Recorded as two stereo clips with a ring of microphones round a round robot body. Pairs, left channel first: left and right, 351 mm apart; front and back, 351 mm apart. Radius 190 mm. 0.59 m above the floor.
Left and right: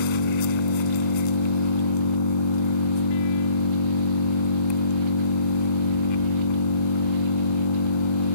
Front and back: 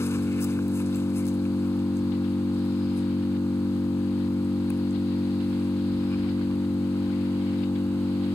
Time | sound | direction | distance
0.0 | an engine running | 85° left | ?